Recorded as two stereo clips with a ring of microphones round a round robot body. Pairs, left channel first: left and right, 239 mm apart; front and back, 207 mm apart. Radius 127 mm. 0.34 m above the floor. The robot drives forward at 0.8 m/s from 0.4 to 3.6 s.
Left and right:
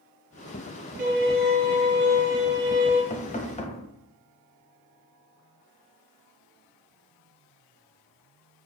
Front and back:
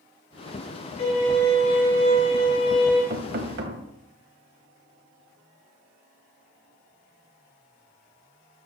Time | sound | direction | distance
1.0 | a violin | 35° right | 4 m
3.1 | knocking | 145° left | 1.1 m